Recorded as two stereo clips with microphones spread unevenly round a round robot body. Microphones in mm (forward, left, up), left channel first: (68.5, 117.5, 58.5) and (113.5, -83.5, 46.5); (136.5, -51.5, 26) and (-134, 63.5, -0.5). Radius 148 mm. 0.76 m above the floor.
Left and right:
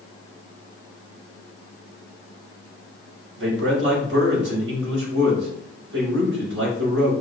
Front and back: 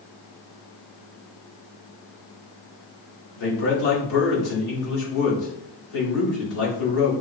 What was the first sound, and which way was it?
A man speaking, 55° right.